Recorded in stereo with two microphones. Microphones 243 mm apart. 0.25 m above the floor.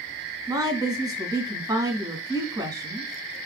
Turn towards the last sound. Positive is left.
turn(degrees=-15)  # may be behind; listen again after turning